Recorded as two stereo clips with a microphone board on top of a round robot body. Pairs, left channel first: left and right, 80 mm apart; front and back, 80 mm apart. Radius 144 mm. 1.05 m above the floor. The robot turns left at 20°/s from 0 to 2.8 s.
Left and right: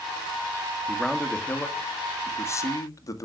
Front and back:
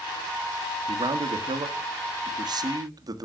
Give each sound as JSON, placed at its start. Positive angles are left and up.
{"t": 0.9, "sound": "a man speaking", "azimuth_deg": 180, "distance_m": 1.5}